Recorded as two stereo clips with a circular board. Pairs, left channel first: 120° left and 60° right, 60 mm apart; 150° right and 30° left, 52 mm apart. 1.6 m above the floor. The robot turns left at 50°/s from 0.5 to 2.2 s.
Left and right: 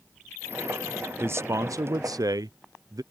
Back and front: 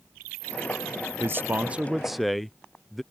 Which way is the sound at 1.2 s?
10° right.